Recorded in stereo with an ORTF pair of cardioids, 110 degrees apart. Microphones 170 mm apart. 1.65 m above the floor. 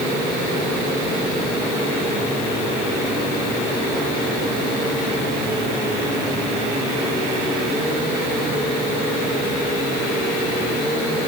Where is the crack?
I don't hear a crack.